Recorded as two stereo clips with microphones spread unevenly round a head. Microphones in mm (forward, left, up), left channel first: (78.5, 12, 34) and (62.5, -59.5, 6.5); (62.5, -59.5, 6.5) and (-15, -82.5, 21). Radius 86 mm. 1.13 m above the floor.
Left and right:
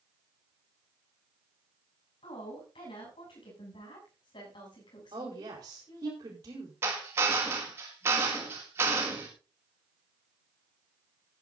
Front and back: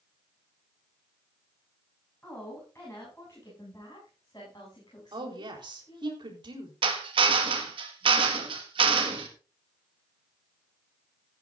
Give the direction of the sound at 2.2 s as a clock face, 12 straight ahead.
9 o'clock.